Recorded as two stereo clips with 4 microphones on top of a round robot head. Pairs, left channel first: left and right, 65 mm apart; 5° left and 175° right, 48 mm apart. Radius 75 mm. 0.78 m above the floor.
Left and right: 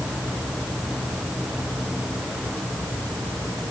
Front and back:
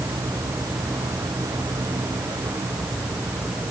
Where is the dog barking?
I don't hear a dog barking.